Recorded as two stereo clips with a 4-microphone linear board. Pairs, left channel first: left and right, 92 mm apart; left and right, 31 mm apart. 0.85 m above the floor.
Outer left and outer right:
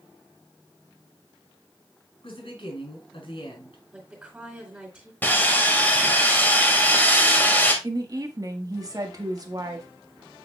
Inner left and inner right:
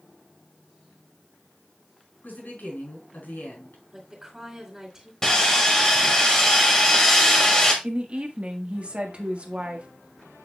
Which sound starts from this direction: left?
A woman speaking, at 2.2 s.